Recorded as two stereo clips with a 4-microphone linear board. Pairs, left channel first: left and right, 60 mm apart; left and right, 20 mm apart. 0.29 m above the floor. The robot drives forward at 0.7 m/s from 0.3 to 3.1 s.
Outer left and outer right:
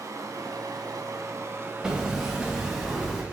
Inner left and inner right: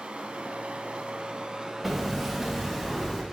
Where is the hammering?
10° right (ahead or behind), 1.2 m; by 3.2 s 5° right (ahead or behind), 1.9 m.